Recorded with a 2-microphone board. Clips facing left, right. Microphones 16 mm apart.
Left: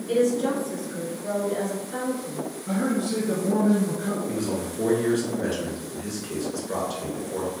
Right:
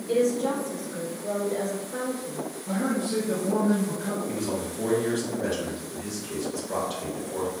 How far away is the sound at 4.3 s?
About 1.3 m.